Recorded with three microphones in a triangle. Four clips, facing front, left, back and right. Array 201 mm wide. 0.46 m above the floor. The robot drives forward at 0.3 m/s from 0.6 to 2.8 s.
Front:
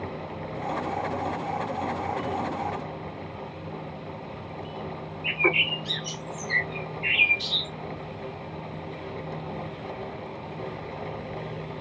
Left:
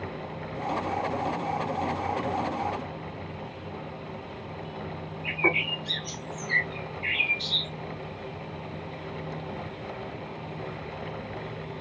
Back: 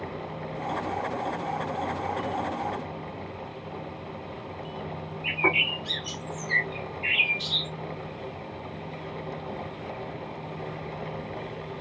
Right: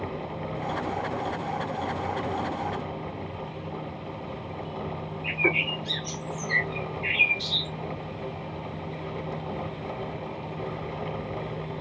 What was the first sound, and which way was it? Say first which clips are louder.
A bird: even, front 1 dB; 150° left.